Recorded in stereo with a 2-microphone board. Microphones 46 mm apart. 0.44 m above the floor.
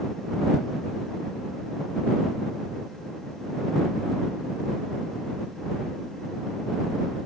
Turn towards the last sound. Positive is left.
No sound to turn to.